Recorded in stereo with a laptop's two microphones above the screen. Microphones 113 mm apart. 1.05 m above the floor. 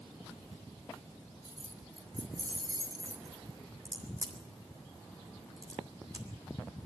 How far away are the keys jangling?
About 3.5 m.